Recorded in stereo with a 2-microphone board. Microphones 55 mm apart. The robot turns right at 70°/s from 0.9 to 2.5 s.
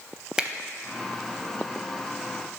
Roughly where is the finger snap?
Centre.